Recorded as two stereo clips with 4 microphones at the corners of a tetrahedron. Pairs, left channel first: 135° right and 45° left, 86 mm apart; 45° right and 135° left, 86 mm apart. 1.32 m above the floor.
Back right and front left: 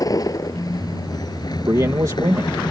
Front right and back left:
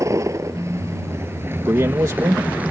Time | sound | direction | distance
0.0 | a vehicle | 175° right | ?
1.7 | a man speaking | 90° left | ?